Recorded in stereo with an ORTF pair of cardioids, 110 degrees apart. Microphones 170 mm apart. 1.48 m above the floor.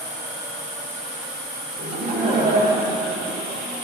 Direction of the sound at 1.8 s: 50° right.